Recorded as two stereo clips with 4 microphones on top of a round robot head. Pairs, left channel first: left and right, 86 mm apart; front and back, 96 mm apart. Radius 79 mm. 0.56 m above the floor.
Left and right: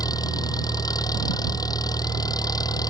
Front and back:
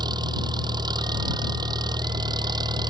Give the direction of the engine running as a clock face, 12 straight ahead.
8 o'clock.